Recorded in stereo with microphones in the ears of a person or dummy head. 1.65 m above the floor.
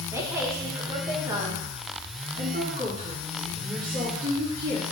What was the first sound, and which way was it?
A woman speaking, 15° right (ahead or behind).